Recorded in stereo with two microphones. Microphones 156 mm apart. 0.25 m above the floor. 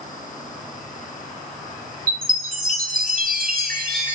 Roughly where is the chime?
Right.